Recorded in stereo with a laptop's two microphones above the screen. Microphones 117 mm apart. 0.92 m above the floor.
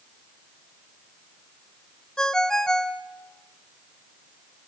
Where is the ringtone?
5° left (ahead or behind), 0.7 m.